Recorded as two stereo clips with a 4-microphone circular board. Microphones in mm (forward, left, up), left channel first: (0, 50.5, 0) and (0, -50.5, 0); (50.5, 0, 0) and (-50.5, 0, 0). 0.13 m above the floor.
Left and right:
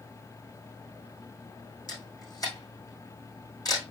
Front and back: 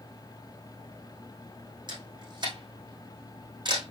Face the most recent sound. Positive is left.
turn(degrees=140)